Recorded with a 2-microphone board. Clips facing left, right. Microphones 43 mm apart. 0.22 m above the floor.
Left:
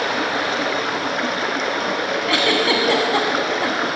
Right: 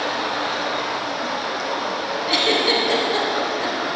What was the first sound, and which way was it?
Running water, 65° left (ahead or behind).